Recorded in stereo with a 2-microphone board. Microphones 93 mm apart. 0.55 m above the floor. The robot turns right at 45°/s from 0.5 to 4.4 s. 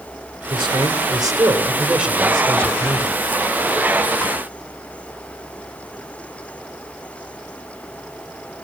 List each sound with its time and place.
0.5 s a man speaking: 80° right, 2.5 m; by 3.2 s 40° left, 2.5 m